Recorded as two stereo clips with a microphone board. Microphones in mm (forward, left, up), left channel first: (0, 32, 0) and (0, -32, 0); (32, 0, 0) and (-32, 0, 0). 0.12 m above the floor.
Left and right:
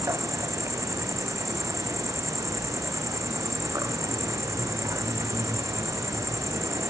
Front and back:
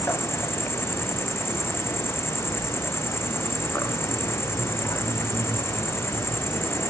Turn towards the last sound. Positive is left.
turn(degrees=-50)